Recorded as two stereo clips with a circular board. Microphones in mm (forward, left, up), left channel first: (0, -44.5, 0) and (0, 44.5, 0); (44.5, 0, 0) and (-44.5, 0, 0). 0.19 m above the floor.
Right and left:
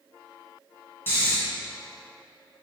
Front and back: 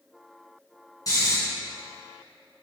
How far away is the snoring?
About 2.5 m.